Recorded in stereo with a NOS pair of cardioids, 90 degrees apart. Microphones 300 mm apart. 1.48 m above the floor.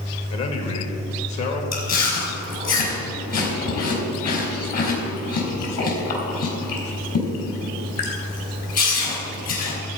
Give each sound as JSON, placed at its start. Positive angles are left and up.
{"t": 0.3, "sound": "a man speaking", "azimuth_deg": 65, "distance_m": 2.5}
{"t": 1.7, "sound": "chewing", "azimuth_deg": 60, "distance_m": 4.0}